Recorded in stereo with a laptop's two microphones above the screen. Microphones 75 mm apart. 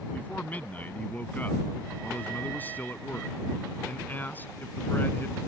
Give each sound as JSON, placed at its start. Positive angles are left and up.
{"t": 0.1, "sound": "a man speaking", "side_deg": 20}